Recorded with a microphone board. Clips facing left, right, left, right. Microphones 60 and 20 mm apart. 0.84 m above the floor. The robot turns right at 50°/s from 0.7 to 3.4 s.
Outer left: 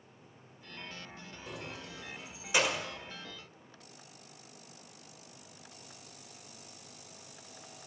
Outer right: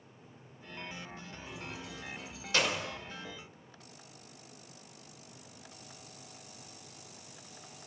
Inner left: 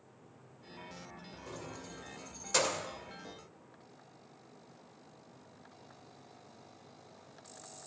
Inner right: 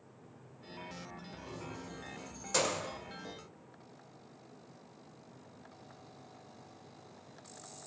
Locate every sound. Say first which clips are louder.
1.5 s keys jangling: outer left 1 dB, even; 70° left (ahead or behind), 1.9 m; by 2.9 s centre (ahead or behind), 1.9 m